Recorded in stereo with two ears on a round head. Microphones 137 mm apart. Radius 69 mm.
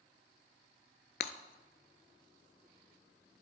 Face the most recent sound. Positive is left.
turn(degrees=65)  # may be behind; listen again after turning